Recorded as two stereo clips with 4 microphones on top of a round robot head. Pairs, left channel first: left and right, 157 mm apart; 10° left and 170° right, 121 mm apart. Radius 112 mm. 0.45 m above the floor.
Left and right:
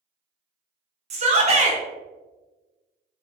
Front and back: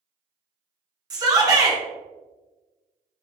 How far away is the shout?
About 1.2 m.